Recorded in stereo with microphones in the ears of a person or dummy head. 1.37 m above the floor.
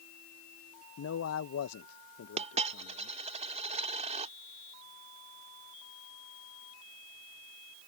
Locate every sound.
1.0 s a man speaking: 60° left (ahead or behind)
2.4 s a dropped coin: 35° right (ahead or behind)